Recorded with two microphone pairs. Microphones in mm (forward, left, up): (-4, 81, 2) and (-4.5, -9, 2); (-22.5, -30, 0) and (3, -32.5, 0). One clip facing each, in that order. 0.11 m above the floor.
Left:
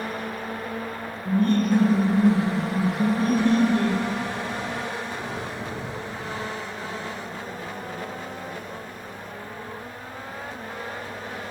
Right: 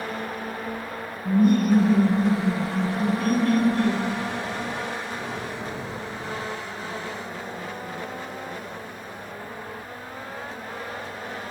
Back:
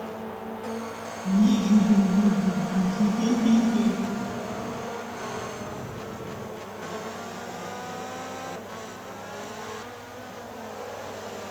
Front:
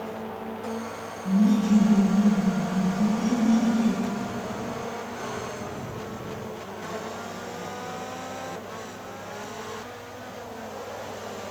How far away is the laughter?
About 1.3 m.